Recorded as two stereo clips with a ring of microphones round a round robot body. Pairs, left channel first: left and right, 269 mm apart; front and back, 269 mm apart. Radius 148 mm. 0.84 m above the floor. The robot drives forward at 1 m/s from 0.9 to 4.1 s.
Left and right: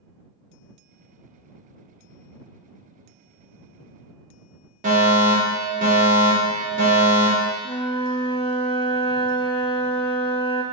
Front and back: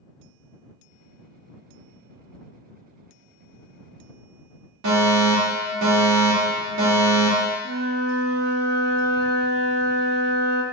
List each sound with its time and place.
4.8 s a fire alarm: 150° right, 3.5 m
7.6 s a flute: 160° left, 1.2 m